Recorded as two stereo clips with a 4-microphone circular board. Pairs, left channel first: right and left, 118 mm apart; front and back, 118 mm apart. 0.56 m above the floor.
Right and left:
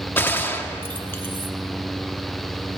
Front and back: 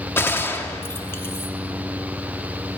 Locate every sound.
0.2 s a gunshot: 40° right, 0.8 m